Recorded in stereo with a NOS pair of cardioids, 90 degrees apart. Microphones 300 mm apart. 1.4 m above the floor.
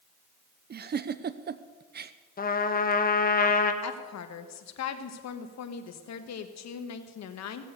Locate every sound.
0.7 s a giggle: 35° right, 0.6 m
2.4 s a trumpet: 30° left, 1.1 m
3.8 s a woman speaking: 60° left, 1.4 m